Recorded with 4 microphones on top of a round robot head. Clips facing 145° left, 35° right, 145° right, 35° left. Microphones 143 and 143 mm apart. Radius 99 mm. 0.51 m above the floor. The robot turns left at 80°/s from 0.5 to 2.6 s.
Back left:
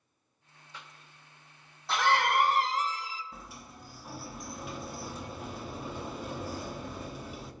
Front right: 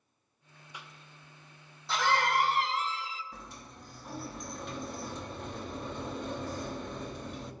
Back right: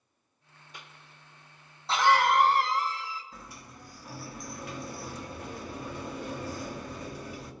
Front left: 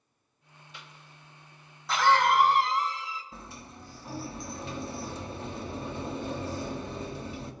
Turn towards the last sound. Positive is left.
turn(degrees=65)